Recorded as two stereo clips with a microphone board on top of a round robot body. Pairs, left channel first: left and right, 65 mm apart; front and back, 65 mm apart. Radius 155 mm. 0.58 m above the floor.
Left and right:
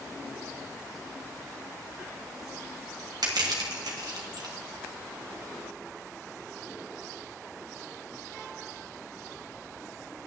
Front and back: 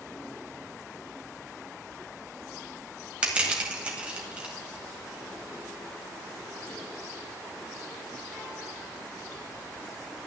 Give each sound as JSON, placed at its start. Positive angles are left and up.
{"t": 3.2, "sound": "crushing", "azimuth_deg": -105, "distance_m": 2.0}